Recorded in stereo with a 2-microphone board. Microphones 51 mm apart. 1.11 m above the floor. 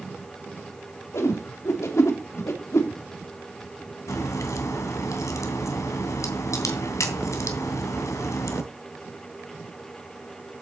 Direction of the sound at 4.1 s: 75° left (ahead or behind).